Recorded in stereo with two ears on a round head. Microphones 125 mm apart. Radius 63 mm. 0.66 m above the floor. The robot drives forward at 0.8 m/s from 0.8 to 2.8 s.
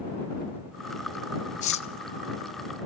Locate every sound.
1.6 s cutlery clinking: 55° left (ahead or behind), 0.5 m; by 1.9 s 45° left (ahead or behind), 0.7 m